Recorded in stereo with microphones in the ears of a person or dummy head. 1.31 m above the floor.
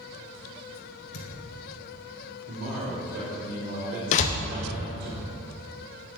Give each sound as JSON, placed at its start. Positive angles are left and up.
{"t": 1.1, "sound": "a thud", "side_deg": 65, "distance_m": 2.0}
{"t": 2.5, "sound": "a man speaking", "side_deg": -60, "distance_m": 3.0}
{"t": 4.1, "sound": "a door slam", "side_deg": 45, "distance_m": 0.7}